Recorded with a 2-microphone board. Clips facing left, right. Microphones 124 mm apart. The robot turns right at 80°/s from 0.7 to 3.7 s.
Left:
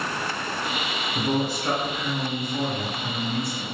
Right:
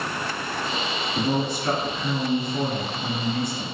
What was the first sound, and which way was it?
A man speaking, 145° left.